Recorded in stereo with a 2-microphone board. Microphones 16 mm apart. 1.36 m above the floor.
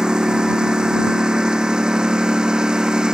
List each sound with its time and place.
0.0 s a lawn mower: 55° right (ahead or behind)